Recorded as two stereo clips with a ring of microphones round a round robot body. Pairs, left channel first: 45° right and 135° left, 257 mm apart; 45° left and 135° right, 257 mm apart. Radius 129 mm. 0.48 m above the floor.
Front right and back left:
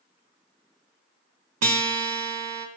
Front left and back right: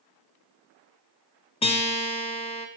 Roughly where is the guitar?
Left.